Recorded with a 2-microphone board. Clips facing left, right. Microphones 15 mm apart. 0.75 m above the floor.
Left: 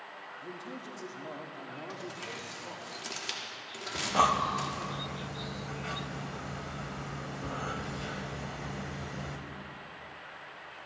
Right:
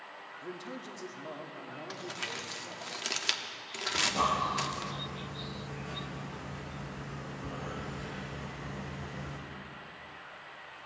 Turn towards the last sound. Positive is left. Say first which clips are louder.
# left 3 dB
turn(degrees=55)  # may be behind; listen again after turning